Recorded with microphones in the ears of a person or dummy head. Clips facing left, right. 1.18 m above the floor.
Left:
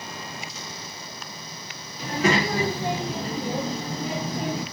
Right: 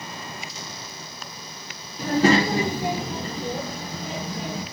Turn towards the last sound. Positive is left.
turn(degrees=50)  # may be behind; listen again after turning